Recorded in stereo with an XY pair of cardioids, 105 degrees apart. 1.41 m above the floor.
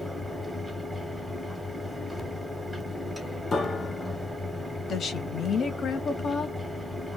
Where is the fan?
5° right, 0.9 m.